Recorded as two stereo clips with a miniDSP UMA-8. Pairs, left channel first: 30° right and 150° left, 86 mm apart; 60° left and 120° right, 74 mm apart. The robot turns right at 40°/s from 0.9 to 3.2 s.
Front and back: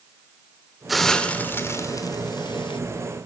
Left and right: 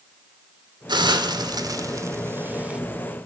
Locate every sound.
0.9 s a hiss: 120° right, 2 m; by 2.8 s 45° right, 2 m